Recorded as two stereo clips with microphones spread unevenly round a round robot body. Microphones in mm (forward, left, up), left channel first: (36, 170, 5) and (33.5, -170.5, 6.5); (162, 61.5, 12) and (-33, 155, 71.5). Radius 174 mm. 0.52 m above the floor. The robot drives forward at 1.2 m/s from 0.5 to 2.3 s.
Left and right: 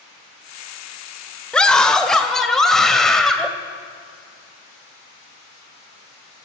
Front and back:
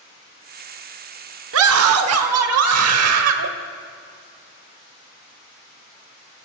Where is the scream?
175° left, 1.3 m; by 3.5 s straight behind, 2 m.